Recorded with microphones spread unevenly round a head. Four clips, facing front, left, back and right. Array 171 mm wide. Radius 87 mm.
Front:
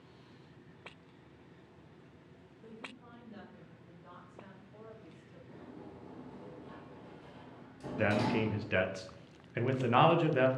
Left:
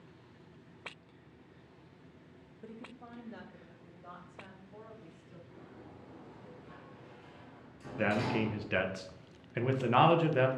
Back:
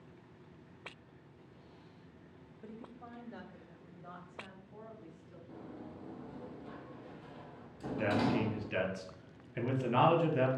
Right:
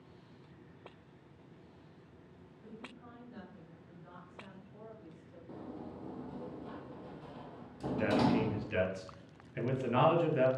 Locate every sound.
2.6 s a woman speaking: 120° left, 1.1 m; by 5.4 s 115° left, 3.5 m
5.5 s a sliding door: 100° right, 0.6 m
8.0 s a man speaking: 50° left, 1.4 m